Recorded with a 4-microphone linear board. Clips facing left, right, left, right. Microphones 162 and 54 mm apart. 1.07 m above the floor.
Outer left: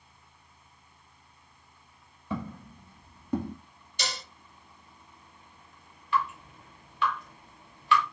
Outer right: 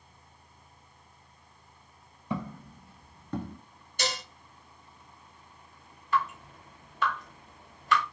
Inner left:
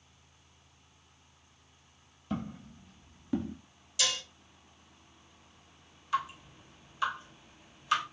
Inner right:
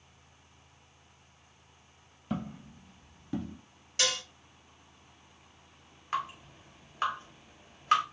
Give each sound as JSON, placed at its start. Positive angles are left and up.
{"t": 2.3, "sound": "footsteps", "side_deg": -15, "distance_m": 1.9}
{"t": 4.0, "sound": "dishes clattering", "side_deg": -45, "distance_m": 1.3}
{"t": 6.1, "sound": "dripping", "side_deg": -40, "distance_m": 1.5}